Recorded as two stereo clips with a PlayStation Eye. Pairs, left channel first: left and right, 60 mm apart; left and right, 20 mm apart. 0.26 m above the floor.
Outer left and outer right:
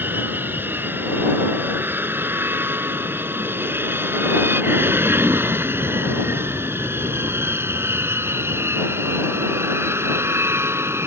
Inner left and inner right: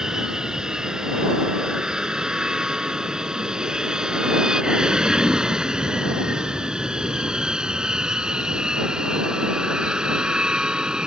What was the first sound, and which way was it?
An aircraft, 35° right (ahead or behind).